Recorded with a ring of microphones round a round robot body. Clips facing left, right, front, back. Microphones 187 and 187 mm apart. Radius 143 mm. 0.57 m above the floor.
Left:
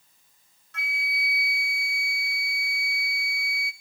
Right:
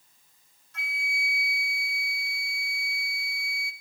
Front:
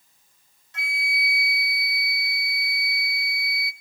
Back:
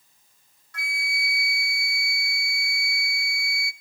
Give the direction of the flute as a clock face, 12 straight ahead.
10 o'clock.